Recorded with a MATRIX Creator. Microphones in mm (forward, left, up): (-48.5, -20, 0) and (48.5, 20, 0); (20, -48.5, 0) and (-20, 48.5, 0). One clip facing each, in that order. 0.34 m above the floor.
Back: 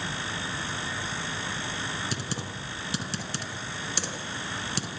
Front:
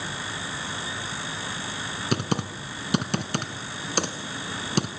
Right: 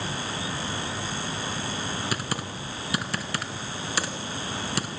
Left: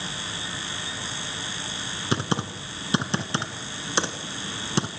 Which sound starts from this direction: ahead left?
Typing on a keyboard, at 2.1 s.